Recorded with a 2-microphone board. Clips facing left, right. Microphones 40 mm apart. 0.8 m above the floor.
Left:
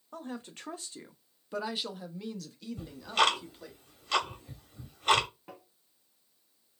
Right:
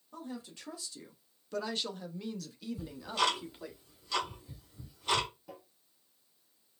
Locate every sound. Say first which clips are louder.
0.1 s a woman speaking: left 3 dB; 50° left (ahead or behind), 0.8 m; by 3.8 s 10° right (ahead or behind), 1.6 m
2.8 s ticking: left 5 dB; 60° left (ahead or behind), 1.0 m
5.5 s tapping: even; 50° left (ahead or behind), 1.5 m